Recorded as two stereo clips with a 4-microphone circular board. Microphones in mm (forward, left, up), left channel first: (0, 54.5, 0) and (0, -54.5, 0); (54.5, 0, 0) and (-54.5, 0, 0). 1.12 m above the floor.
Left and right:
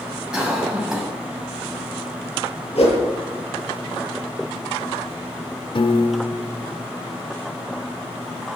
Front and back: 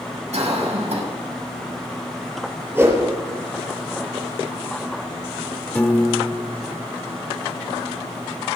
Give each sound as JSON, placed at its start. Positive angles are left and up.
{"t": 0.3, "sound": "a cough", "azimuth_deg": -175, "distance_m": 6.5}
{"t": 2.8, "sound": "a whoosh", "azimuth_deg": 115, "distance_m": 6.5}
{"t": 5.8, "sound": "a piano", "azimuth_deg": 70, "distance_m": 1.1}